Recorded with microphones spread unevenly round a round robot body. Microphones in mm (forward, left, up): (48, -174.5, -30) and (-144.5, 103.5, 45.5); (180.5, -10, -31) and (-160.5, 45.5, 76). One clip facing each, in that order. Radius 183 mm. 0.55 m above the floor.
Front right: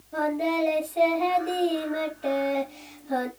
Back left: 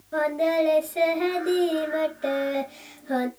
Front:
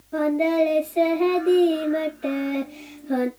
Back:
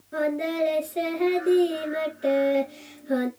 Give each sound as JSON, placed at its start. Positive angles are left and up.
{"t": 0.1, "sound": "singing", "azimuth_deg": 105, "distance_m": 2.5}